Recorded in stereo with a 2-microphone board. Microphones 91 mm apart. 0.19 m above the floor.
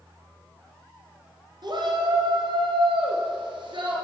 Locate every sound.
1.6 s a shout: 55° right (ahead or behind), 3 m; by 4.0 s 60° right (ahead or behind), 3.5 m